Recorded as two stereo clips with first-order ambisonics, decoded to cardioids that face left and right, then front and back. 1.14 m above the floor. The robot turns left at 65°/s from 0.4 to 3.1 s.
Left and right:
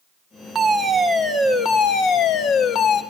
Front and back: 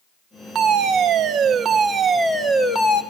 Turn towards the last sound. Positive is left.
turn(degrees=40)